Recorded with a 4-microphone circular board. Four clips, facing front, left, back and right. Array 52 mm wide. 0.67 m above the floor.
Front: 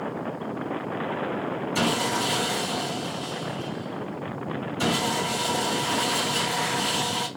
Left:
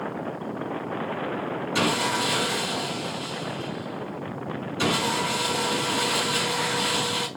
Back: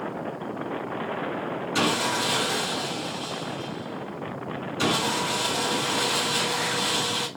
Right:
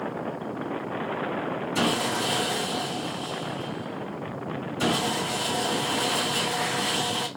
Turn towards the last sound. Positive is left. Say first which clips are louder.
# left 2 dB, back 1 dB
turn(degrees=130)